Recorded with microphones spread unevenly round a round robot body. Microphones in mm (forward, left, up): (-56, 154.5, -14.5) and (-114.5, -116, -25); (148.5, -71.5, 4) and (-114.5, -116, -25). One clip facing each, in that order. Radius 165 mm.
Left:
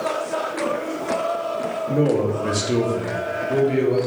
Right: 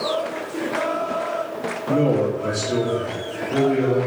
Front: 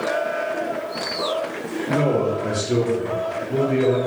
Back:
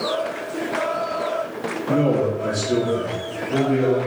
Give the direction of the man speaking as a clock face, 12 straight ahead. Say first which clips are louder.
Even, back 1 dB; 5 o'clock.